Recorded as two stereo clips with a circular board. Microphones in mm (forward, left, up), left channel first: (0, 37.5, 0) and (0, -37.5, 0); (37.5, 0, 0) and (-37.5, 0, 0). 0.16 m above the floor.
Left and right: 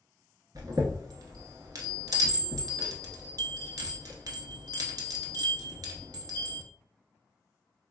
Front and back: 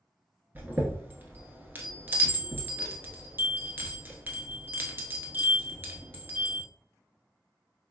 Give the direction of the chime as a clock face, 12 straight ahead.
4 o'clock.